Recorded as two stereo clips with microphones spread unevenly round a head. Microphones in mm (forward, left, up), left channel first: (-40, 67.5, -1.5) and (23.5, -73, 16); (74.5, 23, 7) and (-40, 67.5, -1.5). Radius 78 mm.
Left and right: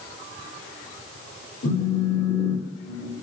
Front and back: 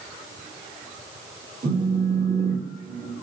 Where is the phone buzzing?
125° left, 3.5 m.